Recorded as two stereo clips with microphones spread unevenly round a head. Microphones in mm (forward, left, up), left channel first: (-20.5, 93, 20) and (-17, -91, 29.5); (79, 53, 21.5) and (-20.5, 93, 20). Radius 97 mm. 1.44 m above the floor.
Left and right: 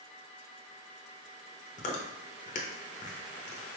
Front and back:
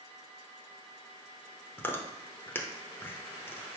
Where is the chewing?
50° left, 0.6 m.